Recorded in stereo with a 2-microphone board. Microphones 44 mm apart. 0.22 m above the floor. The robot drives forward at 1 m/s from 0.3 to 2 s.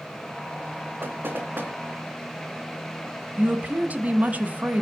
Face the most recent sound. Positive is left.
turn(degrees=-35)  # may be behind; listen again after turning